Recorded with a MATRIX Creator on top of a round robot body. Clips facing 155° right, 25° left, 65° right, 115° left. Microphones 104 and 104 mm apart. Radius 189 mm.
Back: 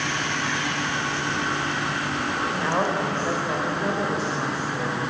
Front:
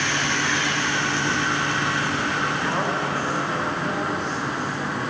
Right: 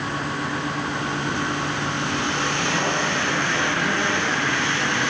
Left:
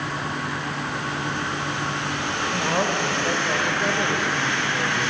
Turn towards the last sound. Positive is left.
turn(degrees=155)